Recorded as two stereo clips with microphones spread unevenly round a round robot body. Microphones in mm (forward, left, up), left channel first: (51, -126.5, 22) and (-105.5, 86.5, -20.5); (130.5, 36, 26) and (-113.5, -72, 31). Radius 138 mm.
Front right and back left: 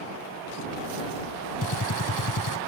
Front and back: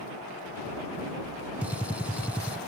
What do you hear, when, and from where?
1.6 s a gunshot: 70° right